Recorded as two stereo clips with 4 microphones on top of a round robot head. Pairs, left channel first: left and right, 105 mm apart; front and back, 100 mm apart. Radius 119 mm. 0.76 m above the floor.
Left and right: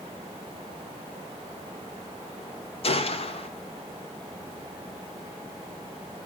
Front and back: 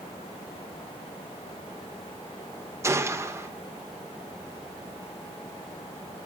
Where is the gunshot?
115° left, 2.0 m.